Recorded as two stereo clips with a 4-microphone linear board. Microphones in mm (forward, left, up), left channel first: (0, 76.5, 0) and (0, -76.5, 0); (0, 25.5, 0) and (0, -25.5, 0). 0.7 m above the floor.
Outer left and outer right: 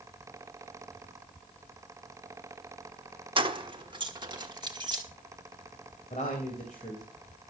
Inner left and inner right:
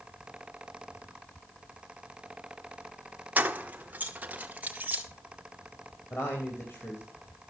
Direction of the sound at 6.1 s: 50° left (ahead or behind).